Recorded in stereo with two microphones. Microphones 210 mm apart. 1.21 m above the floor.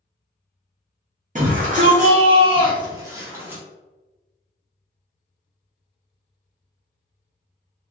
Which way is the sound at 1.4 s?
40° right (ahead or behind).